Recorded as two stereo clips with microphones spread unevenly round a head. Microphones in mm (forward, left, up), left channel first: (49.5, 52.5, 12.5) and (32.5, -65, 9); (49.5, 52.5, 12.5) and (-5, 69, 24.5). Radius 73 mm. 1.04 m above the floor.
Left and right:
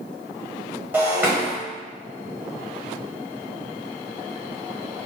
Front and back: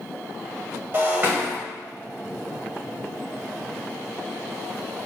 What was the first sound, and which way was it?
Breaking glass, 170° right.